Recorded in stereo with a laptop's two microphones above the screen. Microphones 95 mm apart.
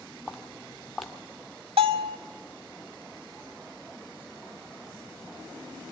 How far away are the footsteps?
About 1.0 m.